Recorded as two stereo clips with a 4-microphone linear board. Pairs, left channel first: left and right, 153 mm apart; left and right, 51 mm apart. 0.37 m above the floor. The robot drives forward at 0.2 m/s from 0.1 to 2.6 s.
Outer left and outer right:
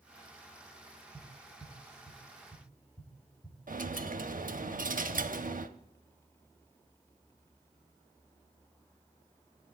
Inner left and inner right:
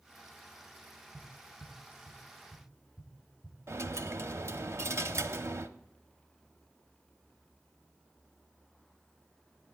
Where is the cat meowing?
No cat meowing in this recording.